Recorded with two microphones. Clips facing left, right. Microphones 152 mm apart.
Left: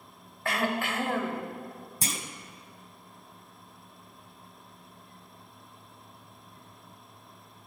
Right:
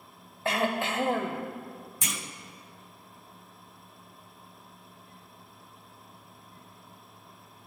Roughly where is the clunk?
Left.